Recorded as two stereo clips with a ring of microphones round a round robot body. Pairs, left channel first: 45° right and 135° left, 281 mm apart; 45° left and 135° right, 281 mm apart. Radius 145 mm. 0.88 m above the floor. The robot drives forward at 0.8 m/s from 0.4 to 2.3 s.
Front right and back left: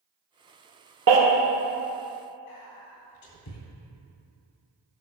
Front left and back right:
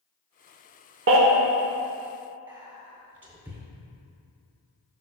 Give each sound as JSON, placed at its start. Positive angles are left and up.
{"t": 1.1, "sound": "a baby crying", "azimuth_deg": 180, "distance_m": 0.9}
{"t": 2.5, "sound": "whispering", "azimuth_deg": -50, "distance_m": 2.5}